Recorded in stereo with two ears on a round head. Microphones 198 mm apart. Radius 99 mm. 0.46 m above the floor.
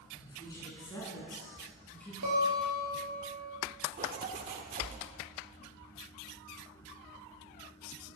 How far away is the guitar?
About 3.5 m.